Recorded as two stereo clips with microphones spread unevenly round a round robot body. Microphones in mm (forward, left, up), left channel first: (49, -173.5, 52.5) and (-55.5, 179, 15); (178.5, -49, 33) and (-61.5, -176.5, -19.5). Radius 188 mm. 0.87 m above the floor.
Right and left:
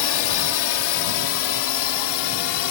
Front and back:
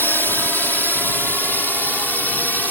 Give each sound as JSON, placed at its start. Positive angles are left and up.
{"t": 0.0, "sound": "a drone", "azimuth_deg": -60}